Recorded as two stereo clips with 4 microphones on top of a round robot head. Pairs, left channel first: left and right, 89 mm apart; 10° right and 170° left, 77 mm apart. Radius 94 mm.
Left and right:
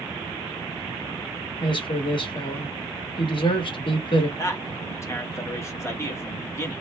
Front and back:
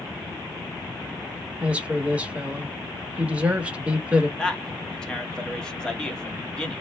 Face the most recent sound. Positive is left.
turn(degrees=60)